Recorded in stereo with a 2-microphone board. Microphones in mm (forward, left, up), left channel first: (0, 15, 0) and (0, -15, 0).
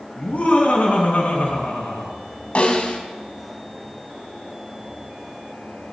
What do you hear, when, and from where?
0.2 s laughter: 65° left (ahead or behind), 4.5 m
2.5 s a snare drum: 45° left (ahead or behind), 2 m